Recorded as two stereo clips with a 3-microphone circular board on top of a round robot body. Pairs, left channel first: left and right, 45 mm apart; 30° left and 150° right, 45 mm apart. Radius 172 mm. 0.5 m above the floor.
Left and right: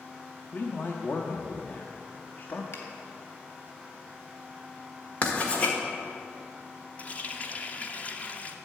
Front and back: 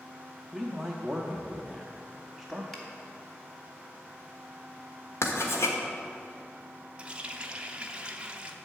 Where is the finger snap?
110° left, 1.7 m.